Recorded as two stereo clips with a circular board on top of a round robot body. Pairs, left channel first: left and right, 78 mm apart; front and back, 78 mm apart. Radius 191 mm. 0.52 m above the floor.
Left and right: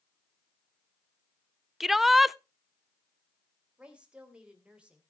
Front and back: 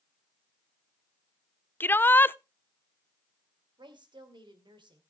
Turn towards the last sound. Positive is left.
turn(degrees=-165)